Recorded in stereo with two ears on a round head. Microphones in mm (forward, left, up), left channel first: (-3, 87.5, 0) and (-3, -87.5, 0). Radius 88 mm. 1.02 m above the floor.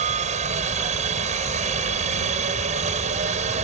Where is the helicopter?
35° right (ahead or behind).